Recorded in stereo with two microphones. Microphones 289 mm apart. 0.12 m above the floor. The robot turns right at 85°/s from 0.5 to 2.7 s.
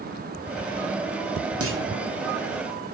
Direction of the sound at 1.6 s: 50° right (ahead or behind).